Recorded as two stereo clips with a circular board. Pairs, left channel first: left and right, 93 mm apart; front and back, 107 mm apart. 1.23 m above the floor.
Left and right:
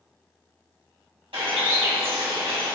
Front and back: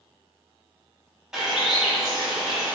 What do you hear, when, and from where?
1.3 s a bird: 95° right, 2.5 m